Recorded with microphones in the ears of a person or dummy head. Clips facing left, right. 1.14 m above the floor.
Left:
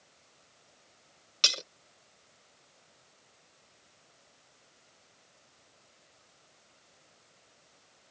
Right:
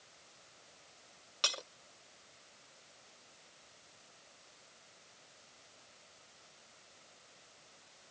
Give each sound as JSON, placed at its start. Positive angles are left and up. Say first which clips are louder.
{"t": 1.4, "sound": "breaking glass", "louder": "left 2 dB", "side_deg": 35}